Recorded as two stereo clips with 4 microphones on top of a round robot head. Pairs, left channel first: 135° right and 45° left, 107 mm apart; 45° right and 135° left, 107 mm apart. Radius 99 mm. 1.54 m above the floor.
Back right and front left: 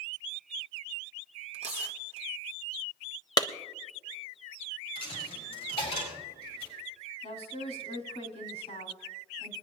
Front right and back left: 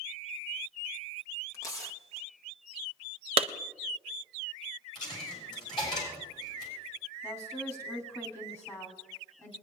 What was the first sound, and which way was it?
Tearing paper, 20° left.